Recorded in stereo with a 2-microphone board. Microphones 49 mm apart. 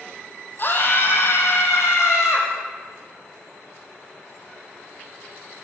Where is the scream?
45° left (ahead or behind), 3.5 m; by 2.5 s 70° left (ahead or behind), 5 m.